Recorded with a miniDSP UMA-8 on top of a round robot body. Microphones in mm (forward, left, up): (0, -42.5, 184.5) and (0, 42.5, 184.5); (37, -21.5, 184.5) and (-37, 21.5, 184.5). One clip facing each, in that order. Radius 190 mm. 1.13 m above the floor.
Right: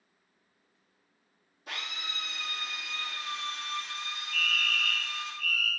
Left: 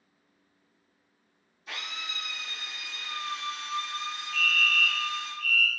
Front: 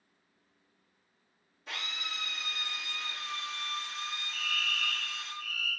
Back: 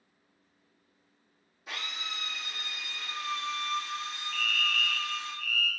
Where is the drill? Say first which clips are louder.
Left 1 dB, back 1 dB; 125° right, 1.4 m.